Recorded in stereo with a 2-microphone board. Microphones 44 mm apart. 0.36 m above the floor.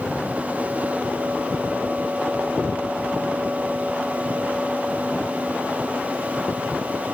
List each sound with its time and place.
Only background noise.